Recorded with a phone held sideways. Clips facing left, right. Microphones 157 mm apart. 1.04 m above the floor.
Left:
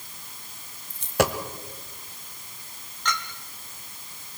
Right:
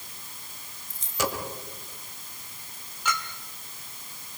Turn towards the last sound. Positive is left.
turn(degrees=-10)  # may be behind; listen again after turning